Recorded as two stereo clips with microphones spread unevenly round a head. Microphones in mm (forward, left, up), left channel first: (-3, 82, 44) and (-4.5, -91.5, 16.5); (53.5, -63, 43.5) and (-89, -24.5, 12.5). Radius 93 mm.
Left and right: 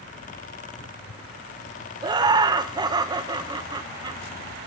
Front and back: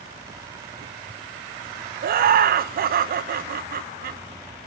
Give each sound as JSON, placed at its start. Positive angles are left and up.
{"t": 2.0, "sound": "laughter", "azimuth_deg": -165, "distance_m": 0.6}